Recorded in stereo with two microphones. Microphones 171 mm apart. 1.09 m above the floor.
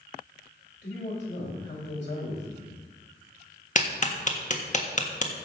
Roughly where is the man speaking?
Left.